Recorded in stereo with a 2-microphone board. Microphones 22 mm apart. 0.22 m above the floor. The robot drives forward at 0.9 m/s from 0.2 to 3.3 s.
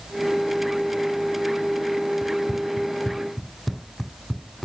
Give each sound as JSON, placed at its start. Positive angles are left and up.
{"t": 2.2, "sound": "running footsteps", "side_deg": 5}